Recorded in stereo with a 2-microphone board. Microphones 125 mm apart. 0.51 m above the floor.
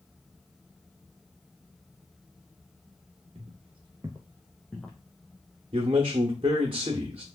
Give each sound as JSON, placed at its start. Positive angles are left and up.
{"t": 3.4, "sound": "footsteps", "side_deg": -55, "distance_m": 0.8}
{"t": 5.7, "sound": "a man speaking", "side_deg": -45, "distance_m": 0.9}